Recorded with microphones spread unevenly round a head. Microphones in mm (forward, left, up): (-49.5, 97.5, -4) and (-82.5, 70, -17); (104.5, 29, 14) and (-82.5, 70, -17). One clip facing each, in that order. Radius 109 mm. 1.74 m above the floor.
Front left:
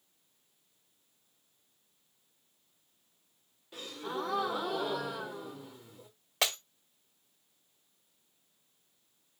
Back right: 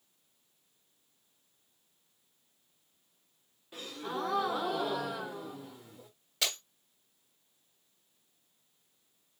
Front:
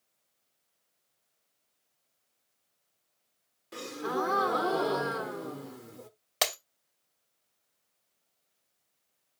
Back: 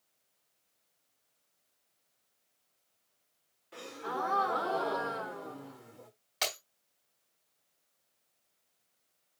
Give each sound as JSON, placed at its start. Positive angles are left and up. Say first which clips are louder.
{"t": 3.7, "sound": "a gasp", "louder": "even, front 6 dB", "azimuth_deg": -50, "distance_m": 1.0}
{"t": 6.4, "sound": "breaking glass", "louder": "front left 3 dB, front 6 dB", "azimuth_deg": -10, "distance_m": 3.0}